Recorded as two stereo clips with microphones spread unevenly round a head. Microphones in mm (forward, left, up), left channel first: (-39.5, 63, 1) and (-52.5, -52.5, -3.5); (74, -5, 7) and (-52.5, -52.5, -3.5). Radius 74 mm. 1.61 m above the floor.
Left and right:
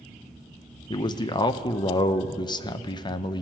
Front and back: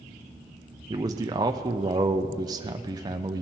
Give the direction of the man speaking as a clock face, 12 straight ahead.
8 o'clock.